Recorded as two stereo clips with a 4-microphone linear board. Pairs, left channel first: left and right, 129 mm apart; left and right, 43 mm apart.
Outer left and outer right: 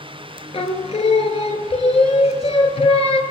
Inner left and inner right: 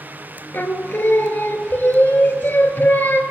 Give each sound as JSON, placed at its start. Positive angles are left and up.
{"t": 0.5, "sound": "singing", "side_deg": 50, "distance_m": 0.5}